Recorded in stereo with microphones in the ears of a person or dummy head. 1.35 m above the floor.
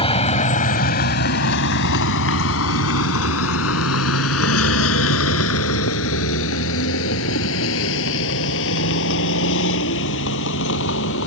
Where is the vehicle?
30° left (ahead or behind); by 11.3 s 70° left (ahead or behind).